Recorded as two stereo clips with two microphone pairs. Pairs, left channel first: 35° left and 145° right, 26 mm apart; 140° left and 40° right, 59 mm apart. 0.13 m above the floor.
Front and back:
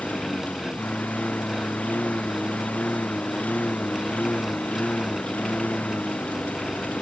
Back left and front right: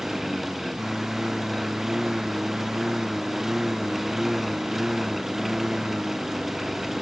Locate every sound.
0.0 s a lawn mower: 45° left